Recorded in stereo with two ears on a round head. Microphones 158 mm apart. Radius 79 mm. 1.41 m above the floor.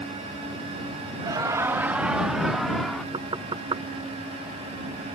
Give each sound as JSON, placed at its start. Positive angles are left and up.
{"t": 1.2, "sound": "laughter", "side_deg": -25}
{"t": 3.1, "sound": "knocking", "side_deg": -25}